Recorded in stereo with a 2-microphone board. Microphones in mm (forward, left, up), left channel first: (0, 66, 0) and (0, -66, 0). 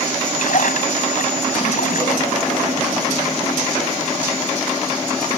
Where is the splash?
70° left (ahead or behind).